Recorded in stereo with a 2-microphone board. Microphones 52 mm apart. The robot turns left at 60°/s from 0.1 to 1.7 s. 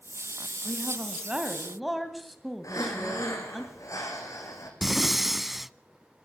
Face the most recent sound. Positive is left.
turn(degrees=-5)  # may be behind; listen again after turning